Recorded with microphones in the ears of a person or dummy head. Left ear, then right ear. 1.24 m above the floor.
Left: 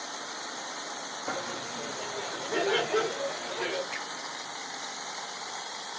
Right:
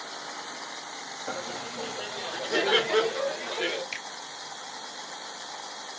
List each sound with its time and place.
1.3 s laughter: centre (ahead or behind), 0.6 m; by 3.8 s 50° right (ahead or behind), 1.8 m
3.9 s a finger snap: 40° right (ahead or behind), 2.5 m